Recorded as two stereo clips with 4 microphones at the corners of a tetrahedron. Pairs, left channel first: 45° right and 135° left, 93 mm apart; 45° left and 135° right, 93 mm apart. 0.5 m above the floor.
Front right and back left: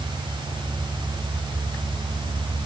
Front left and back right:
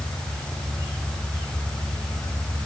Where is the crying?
I don't hear crying.